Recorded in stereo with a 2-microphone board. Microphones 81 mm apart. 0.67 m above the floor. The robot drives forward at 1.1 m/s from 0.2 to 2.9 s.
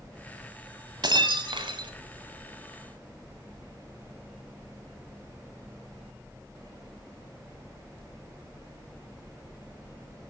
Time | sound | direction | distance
1.0 | breaking glass | 65° right (ahead or behind) | 1.7 m